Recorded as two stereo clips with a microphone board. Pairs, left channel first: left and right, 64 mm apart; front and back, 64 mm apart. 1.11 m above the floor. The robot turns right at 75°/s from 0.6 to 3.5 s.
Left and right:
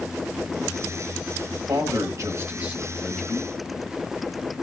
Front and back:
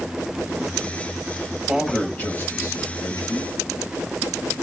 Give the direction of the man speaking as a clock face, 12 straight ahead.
3 o'clock.